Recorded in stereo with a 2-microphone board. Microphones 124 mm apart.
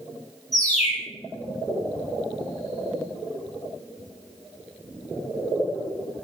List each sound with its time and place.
0.5 s a bird: 75° left (ahead or behind), 4 m